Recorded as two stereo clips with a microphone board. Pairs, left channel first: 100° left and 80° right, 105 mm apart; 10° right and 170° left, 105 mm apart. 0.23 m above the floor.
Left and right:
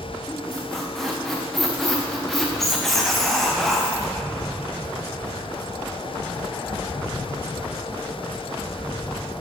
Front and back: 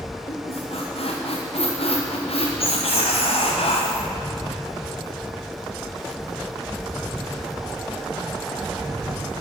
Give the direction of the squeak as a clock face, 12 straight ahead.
12 o'clock.